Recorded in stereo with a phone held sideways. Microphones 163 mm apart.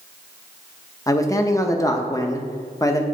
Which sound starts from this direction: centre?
A man speaking, at 1.1 s.